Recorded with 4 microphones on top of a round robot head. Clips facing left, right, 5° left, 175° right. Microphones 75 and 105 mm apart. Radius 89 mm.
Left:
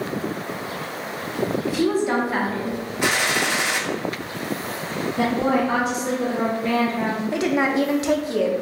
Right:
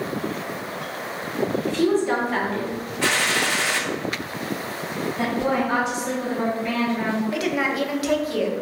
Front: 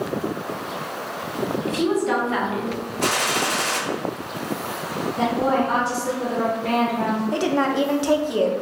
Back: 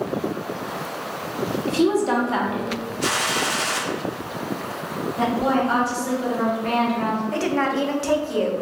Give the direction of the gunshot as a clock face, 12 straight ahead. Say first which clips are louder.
Even, front 2 dB; 11 o'clock.